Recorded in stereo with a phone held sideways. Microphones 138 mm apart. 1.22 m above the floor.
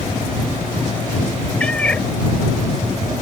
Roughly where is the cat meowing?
Centre.